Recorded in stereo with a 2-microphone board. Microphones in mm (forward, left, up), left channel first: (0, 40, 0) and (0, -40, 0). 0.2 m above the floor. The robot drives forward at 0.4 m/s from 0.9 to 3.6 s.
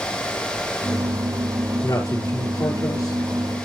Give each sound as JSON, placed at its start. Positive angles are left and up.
{"t": 1.8, "sound": "a man speaking", "side_deg": 45, "distance_m": 4.0}